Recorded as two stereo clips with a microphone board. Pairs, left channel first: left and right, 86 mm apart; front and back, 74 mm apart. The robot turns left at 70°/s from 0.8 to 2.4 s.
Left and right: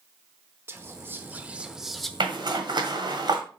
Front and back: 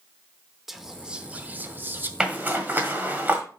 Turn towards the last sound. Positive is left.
turn(degrees=-115)